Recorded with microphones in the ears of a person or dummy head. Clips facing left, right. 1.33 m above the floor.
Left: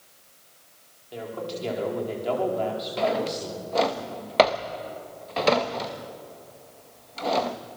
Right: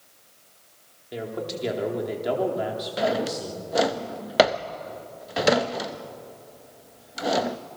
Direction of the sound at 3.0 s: 10° right (ahead or behind).